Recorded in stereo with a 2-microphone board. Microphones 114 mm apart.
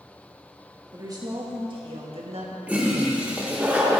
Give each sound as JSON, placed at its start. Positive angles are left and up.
{"t": 0.9, "sound": "a woman speaking", "side_deg": -35, "distance_m": 2.0}
{"t": 2.7, "sound": "a toilet flushing", "side_deg": -10, "distance_m": 1.5}